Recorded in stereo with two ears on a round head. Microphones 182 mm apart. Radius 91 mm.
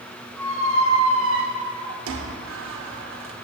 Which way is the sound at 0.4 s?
70° right (ahead or behind).